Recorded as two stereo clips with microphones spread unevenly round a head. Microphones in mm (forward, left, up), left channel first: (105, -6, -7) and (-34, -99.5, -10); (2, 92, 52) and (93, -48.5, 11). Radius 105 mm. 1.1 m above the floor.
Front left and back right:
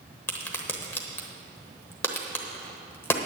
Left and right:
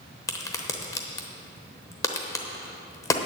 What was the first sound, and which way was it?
A crack, 95° left.